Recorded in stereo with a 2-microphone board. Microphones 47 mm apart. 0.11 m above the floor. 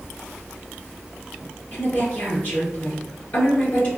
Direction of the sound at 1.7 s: 40° left (ahead or behind).